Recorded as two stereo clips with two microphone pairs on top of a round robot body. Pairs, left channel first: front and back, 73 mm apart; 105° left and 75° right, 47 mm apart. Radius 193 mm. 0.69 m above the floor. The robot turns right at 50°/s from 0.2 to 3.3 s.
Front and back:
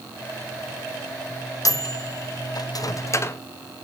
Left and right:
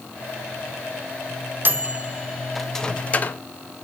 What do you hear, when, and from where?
1.6 s a microwave: 30° right, 0.8 m; by 3.4 s 55° left, 0.8 m